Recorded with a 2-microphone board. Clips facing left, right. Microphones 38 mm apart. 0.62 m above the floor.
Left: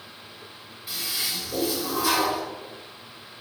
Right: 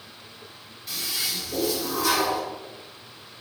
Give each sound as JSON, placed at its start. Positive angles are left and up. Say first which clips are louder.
{"t": 0.9, "sound": "a toilet flushing", "louder": "even", "side_deg": 10, "distance_m": 1.6}